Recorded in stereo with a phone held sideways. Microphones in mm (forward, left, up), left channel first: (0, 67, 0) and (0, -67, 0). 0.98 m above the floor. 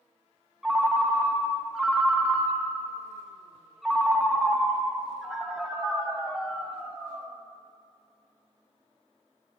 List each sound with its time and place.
0.6 s a ringtone: 5° right (ahead or behind), 0.5 m